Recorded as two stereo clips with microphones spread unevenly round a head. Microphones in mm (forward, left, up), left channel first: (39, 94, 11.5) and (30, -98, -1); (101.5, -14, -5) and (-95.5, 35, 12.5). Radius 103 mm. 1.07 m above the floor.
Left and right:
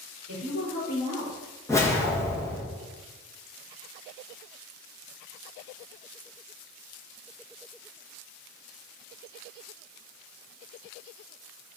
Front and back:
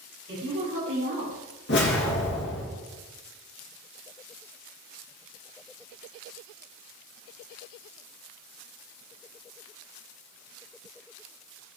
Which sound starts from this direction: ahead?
A whoosh, at 1.7 s.